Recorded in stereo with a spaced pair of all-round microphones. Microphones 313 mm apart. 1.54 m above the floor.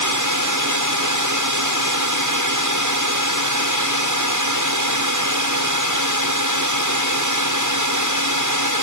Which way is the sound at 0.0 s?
65° right (ahead or behind).